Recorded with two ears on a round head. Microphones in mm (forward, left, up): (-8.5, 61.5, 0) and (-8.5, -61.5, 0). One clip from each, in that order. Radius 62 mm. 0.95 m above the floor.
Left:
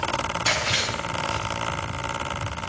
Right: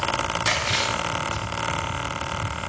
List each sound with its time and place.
0.5 s chewing: 15° right (ahead or behind), 4.5 m